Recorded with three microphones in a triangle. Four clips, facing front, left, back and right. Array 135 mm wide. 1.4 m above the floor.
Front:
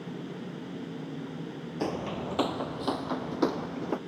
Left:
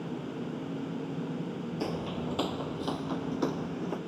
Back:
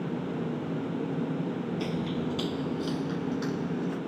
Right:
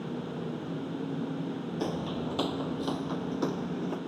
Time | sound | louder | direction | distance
1.8 | footsteps | right 1 dB, front 3 dB | 10° right | ?